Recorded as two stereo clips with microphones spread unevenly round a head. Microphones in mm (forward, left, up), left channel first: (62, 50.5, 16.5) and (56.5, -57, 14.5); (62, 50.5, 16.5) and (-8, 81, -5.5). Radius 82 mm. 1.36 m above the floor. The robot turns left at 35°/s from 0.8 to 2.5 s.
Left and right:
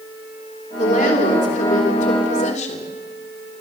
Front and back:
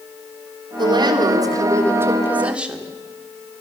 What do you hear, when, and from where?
0.8 s a woman speaking: 140° left, 3.5 m; by 2.9 s 80° left, 3.5 m